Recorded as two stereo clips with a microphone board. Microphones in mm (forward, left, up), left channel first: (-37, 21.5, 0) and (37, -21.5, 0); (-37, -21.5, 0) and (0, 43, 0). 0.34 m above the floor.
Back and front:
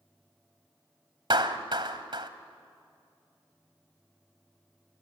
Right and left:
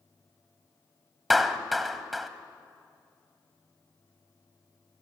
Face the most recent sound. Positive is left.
turn(degrees=-30)